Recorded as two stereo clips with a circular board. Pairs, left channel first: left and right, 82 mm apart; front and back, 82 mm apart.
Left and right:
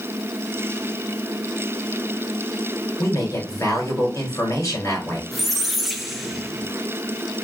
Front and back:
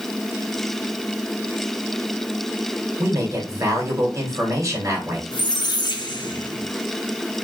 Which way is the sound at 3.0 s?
140° left.